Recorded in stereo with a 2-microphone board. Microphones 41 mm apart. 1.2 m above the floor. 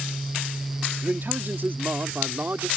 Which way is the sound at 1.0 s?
55° right (ahead or behind).